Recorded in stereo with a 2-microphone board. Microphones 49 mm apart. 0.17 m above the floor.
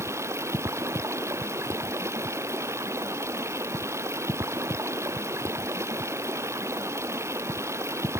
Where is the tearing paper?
No tearing paper in this recording.